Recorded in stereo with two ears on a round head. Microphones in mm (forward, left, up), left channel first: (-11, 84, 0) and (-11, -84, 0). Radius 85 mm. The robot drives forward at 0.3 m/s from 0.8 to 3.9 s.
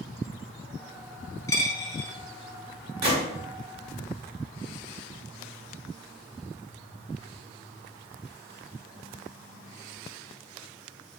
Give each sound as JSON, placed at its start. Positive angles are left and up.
{"t": 1.5, "sound": "a dropped coin", "side_deg": 20, "distance_m": 0.7}
{"t": 3.0, "sound": "a gunshot", "side_deg": -60, "distance_m": 1.7}